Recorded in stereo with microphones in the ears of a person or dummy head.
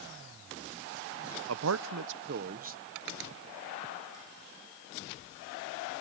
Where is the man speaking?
75° right (ahead or behind); by 2.9 s 40° right (ahead or behind).